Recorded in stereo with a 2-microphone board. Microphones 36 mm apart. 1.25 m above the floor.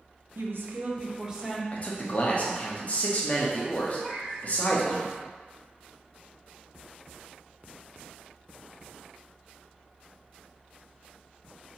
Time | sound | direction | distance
0.3 | a woman speaking | 85° right | 0.7 m
1.7 | a man speaking | 40° left (ahead or behind) | 0.8 m
4.0 | a cat meowing | 5° right (ahead or behind) | 1.8 m